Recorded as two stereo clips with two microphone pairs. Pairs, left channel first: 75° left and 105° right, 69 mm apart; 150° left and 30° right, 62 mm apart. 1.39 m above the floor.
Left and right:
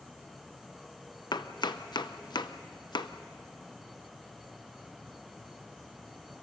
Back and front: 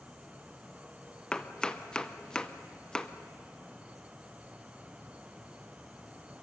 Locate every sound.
1.3 s chopping: 75° left, 0.8 m